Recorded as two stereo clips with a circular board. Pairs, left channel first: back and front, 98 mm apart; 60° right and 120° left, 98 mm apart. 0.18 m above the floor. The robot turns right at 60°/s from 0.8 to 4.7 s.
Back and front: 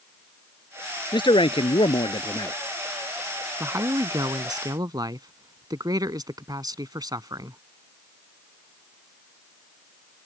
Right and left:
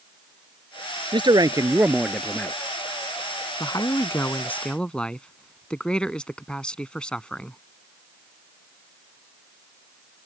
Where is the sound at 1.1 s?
145° left; by 2.5 s 130° right.